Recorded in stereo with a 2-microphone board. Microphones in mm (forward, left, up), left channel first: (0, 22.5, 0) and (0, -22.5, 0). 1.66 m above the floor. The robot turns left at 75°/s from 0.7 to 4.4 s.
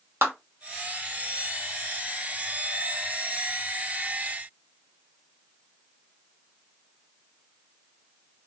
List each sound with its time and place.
0.2 s a clap: 65° right (ahead or behind), 1.7 m